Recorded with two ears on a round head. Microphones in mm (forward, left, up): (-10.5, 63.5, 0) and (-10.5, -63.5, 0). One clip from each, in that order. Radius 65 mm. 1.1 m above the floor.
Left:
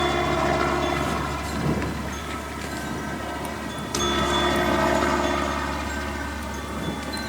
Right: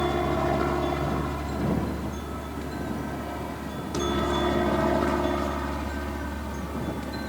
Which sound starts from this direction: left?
A helicopter, at 0.0 s.